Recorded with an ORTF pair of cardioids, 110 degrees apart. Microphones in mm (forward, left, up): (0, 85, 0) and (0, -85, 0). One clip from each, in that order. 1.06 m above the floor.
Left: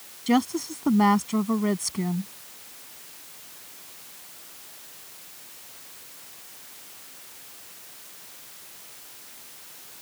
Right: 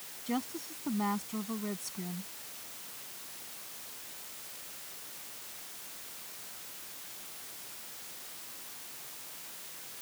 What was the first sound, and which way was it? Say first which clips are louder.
A woman speaking: left 13 dB; 65° left.